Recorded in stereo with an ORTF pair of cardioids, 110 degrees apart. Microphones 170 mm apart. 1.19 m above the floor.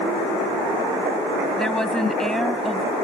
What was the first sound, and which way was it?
A woman speaking, 5° left.